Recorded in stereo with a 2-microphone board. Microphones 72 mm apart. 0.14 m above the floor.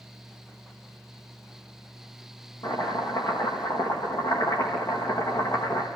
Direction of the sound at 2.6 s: 75° left (ahead or behind).